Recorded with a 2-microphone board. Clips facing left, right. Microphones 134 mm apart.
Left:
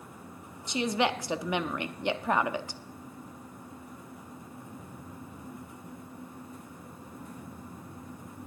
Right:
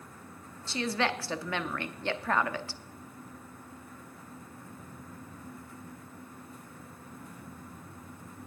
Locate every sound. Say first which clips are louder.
0.7 s a woman speaking: left 3 dB; 20° left (ahead or behind), 0.7 m